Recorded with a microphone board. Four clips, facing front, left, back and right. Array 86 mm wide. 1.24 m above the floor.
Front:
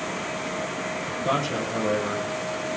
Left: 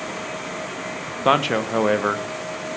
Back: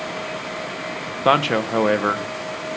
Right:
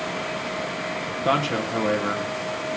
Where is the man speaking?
145° left, 1.1 m.